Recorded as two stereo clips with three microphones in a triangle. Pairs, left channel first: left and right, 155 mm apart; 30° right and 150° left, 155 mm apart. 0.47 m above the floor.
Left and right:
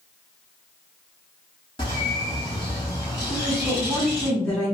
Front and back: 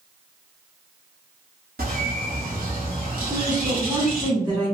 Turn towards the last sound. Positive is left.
turn(degrees=160)